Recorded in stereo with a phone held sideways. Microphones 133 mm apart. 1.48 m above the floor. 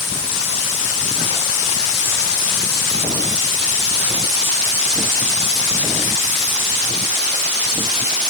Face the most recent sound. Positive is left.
No sound to turn to.